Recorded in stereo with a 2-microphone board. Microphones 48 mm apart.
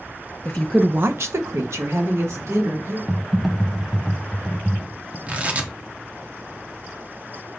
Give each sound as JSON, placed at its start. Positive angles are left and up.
{"t": 0.5, "sound": "a woman speaking", "side_deg": 35, "distance_m": 0.7}
{"t": 3.1, "sound": "typing on a keyboard", "side_deg": 0, "distance_m": 0.7}
{"t": 5.3, "sound": "tearing paper", "side_deg": -30, "distance_m": 1.0}